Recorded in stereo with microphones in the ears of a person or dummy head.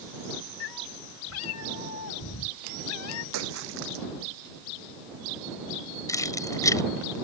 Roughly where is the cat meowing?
Left.